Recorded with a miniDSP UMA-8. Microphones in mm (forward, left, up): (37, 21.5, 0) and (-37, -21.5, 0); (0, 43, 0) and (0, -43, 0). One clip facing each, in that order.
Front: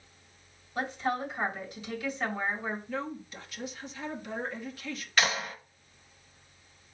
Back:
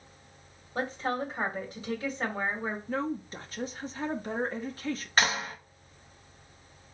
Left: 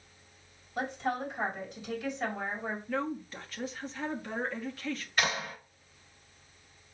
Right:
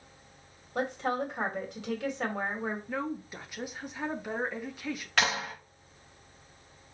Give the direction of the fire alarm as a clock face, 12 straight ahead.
I don't hear a fire alarm.